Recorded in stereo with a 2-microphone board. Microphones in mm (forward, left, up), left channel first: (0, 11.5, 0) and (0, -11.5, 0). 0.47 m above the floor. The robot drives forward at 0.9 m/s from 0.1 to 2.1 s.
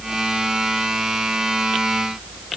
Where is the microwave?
No microwave in this recording.